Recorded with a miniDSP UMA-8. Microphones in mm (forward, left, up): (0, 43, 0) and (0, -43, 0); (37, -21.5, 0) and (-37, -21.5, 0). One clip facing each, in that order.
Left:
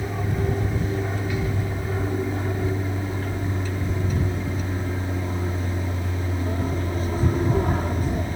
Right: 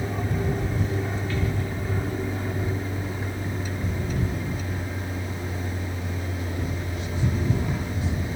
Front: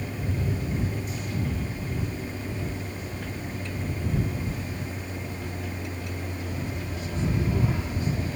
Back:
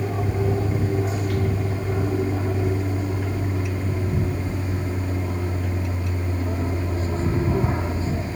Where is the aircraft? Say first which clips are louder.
Left 1 dB, back 7 dB; 170° left; by 8.4 s 125° left.